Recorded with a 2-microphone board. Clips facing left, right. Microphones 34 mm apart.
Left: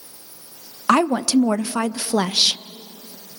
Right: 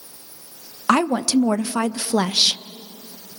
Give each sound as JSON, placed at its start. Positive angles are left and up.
{"t": 0.9, "sound": "a woman speaking", "side_deg": 20, "distance_m": 0.5}